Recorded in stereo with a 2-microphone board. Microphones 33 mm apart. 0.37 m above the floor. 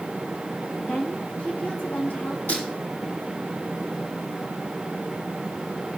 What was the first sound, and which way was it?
A woman speaking, 50° left (ahead or behind).